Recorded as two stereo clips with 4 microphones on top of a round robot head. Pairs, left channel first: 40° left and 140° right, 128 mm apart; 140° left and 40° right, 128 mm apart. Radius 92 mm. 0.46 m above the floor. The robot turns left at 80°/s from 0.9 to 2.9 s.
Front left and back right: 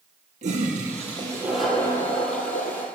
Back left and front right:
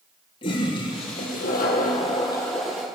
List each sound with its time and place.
0.4 s a toilet flushing: 170° right, 3 m; by 2.9 s 35° left, 3 m